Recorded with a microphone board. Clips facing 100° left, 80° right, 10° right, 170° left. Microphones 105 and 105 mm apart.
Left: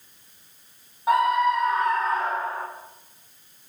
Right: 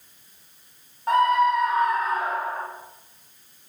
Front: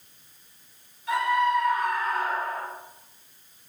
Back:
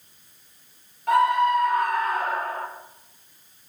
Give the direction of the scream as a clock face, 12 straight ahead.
6 o'clock.